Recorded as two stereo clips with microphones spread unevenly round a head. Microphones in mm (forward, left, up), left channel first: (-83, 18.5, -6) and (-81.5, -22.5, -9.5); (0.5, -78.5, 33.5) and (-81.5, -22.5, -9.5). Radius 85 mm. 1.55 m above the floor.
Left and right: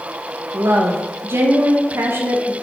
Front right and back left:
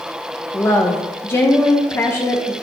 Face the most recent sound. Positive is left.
turn(degrees=-100)